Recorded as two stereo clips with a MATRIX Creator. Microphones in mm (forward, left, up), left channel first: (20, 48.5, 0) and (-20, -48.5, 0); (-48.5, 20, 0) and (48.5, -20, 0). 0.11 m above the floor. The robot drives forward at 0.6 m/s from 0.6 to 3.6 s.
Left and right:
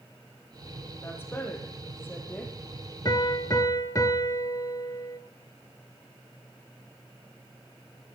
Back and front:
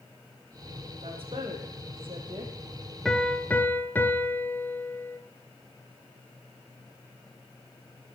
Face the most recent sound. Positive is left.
turn(degrees=100)